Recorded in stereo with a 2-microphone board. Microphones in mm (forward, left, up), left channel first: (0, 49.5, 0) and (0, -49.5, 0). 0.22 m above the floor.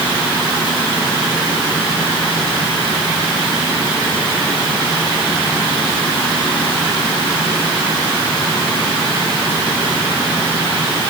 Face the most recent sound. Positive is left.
No sound to turn to.